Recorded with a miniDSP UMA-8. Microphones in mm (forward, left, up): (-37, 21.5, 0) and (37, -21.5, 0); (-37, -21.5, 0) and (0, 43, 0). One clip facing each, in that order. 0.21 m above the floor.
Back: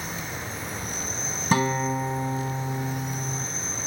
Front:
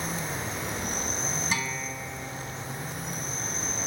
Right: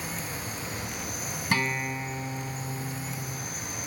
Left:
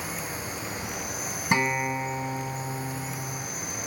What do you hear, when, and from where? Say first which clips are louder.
0.0 s an insect: front 1 dB, left 2 dB; 10° right, 8 m
1.5 s a guitar: back 9 dB, left 4 dB; 125° left, 0.9 m